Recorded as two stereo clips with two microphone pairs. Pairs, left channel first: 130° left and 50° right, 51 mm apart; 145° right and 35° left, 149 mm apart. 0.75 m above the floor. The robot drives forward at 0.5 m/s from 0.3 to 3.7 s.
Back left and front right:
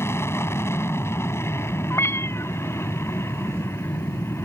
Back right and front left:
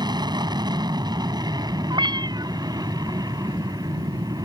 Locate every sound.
0.0 s an aircraft: 100° left
1.9 s a cat meowing: 95° left; by 2.5 s 100° left